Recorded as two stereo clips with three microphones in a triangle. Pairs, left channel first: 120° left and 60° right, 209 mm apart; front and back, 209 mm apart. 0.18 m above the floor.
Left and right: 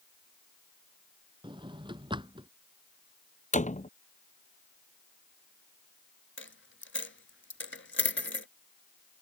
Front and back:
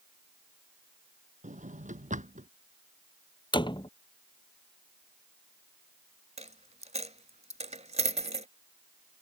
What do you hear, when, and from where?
1.4 s a drawer: 125° right
3.5 s a door slam: 70° left
6.4 s a dropped coin: 125° left